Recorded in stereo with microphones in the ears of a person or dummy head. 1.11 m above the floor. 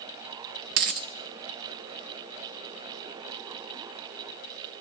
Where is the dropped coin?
55° right (ahead or behind), 0.8 m.